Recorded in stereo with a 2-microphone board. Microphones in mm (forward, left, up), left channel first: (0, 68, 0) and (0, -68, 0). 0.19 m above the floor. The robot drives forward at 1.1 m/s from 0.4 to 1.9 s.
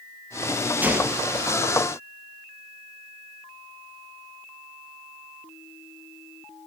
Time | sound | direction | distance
0.8 | a gunshot | 15° right (ahead or behind) | 3 m